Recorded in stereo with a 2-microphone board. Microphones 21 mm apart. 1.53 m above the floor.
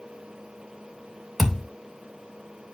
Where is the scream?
I don't hear a scream.